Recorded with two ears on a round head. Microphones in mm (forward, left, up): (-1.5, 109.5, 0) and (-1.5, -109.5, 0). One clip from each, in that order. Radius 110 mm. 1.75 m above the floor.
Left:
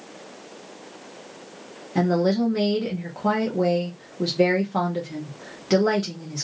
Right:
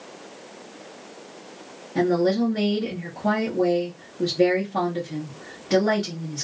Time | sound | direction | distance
1.9 | a woman speaking | 45° left (ahead or behind) | 1.2 m